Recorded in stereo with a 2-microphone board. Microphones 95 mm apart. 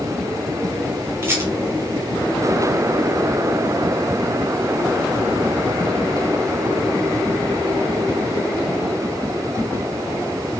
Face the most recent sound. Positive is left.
turn(degrees=-30)  # may be behind; listen again after turning